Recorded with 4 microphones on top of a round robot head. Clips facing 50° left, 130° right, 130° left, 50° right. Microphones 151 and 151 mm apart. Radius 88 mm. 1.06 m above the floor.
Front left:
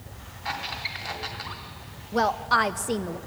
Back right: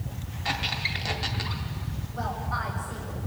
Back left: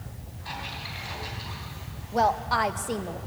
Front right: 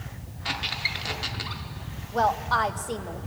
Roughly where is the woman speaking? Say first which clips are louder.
Front left 10 dB, even; ahead left.